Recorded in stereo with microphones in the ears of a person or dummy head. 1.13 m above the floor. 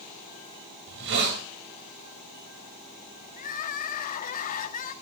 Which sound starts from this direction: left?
Crying, at 3.4 s.